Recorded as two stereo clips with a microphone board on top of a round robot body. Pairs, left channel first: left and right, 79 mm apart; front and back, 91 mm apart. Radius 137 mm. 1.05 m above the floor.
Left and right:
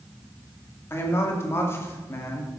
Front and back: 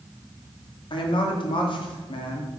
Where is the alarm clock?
No alarm clock in this recording.